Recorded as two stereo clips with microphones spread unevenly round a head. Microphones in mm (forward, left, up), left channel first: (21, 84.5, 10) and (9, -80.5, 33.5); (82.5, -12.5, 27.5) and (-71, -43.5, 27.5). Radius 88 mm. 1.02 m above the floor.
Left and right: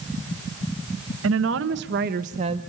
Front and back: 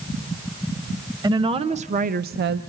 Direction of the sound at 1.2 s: 105° right.